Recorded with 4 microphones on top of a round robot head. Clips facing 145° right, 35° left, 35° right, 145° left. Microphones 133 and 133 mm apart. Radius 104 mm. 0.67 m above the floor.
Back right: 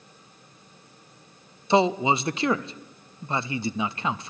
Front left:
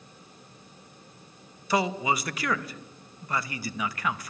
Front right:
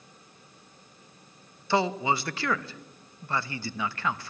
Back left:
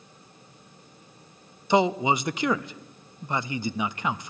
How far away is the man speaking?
About 0.5 m.